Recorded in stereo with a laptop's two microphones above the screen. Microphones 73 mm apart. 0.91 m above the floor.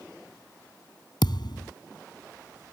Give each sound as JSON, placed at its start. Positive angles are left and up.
{"t": 1.2, "sound": "a thud", "side_deg": 70}